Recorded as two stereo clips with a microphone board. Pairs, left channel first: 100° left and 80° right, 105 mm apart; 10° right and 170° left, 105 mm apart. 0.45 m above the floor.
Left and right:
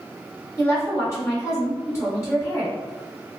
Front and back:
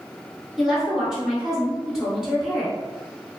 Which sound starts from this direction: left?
A woman speaking, at 0.6 s.